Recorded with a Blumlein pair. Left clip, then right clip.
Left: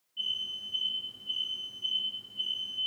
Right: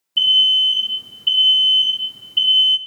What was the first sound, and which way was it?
An alarm, 50° right.